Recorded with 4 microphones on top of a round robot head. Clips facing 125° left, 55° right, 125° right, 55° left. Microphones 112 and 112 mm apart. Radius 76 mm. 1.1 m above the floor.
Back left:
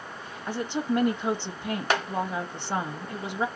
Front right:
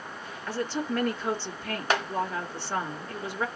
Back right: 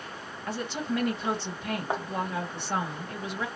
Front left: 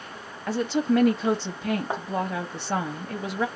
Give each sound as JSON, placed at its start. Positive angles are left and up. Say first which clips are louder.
{"t": 0.5, "sound": "a woman speaking", "louder": "back left 2 dB, front left 8 dB", "azimuth_deg": 50, "distance_m": 1.6}